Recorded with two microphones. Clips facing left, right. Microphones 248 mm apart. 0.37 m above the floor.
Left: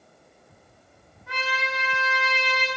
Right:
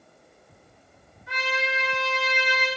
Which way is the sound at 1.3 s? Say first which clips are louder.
Right 3 dB; 60° left (ahead or behind).